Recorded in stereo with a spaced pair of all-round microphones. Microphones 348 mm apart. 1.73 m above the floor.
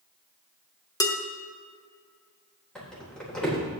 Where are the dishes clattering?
10° left (ahead or behind), 1.5 m.